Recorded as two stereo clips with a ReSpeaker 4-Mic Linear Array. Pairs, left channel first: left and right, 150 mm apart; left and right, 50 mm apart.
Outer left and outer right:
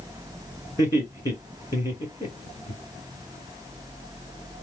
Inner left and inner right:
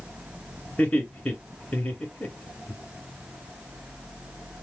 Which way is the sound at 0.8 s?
20° left (ahead or behind).